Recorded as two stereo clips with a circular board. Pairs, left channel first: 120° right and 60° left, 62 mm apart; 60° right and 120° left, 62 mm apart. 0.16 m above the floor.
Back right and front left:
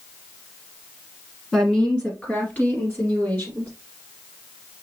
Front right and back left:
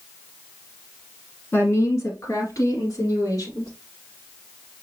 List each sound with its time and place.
1.5 s a woman speaking: 35° right, 1.5 m; by 3.7 s 70° right, 4 m